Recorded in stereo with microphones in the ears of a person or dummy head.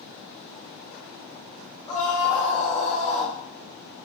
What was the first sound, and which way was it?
A scream, 30° left (ahead or behind).